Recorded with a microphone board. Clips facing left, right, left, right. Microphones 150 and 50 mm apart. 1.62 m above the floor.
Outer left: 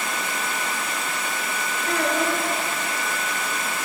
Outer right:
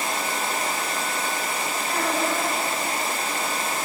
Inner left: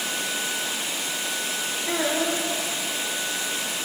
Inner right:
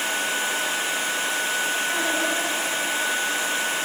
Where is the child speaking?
80° left, 5 m.